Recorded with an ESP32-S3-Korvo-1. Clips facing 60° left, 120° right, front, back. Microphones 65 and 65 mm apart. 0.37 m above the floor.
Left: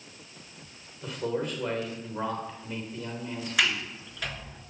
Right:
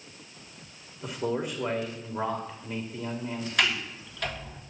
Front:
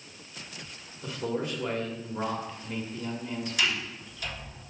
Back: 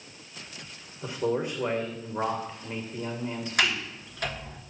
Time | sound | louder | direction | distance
1.0 | a man speaking | right 1 dB, back 4 dB | 170° left | 1.5 m
3.6 | a sliding door | even, back 4 dB | 145° left | 1.3 m